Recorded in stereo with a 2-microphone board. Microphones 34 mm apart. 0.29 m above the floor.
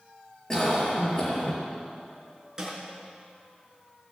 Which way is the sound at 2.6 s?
15° right (ahead or behind).